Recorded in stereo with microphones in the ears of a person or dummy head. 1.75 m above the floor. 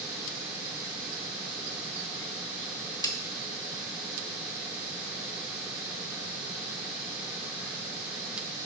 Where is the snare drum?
25° left (ahead or behind), 0.5 m.